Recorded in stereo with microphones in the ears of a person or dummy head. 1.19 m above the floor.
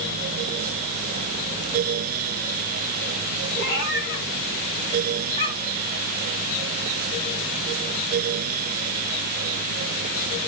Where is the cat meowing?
60° left (ahead or behind), 2.5 m; by 5.9 s 20° left (ahead or behind), 2 m.